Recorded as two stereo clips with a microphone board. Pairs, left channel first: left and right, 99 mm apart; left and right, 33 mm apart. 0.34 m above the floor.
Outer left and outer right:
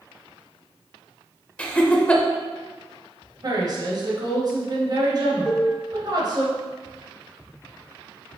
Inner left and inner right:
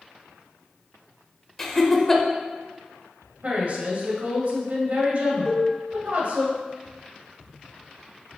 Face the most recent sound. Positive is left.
turn(degrees=-10)  # may be behind; listen again after turning